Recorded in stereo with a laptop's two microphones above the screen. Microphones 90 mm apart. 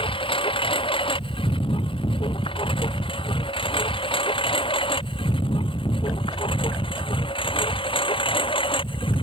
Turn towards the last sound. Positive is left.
turn(degrees=75)  # may be behind; listen again after turning